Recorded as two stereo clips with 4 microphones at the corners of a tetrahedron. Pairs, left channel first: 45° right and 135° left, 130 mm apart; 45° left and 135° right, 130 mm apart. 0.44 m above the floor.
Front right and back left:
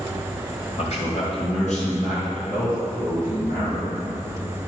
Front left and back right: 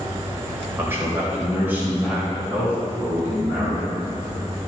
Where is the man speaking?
65° right, 1.9 m; by 3.9 s 55° right, 5.5 m.